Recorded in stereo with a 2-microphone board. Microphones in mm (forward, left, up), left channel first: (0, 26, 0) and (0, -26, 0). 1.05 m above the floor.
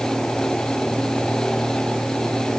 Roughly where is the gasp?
No gasp in this recording.